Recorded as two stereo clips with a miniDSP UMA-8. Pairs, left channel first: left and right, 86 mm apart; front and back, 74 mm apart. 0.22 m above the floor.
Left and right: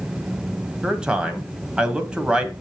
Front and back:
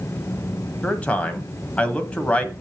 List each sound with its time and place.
0.8 s a man speaking: 30° right, 1.3 m